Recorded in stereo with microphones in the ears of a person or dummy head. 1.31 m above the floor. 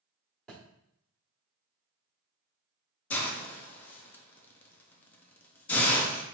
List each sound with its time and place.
0.5 s a thud: 5° left (ahead or behind), 1.2 m
3.1 s a hiss: 10° left (ahead or behind), 0.5 m